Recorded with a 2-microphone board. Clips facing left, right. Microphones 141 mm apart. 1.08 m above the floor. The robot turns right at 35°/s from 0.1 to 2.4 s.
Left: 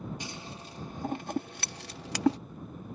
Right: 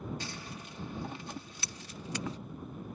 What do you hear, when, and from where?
0.2 s scissors: 15° left (ahead or behind); by 2.4 s 85° left